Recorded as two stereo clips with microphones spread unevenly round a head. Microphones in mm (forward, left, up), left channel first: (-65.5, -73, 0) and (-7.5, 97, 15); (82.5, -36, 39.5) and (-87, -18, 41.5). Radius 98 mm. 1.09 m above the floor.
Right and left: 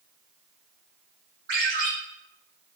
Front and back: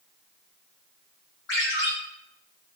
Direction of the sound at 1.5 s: 25° left.